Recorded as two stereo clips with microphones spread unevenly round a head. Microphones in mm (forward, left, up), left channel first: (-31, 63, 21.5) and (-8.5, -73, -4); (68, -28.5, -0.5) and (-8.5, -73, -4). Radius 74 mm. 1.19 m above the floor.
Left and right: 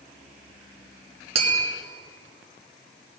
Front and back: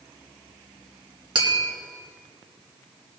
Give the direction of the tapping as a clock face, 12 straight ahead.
4 o'clock.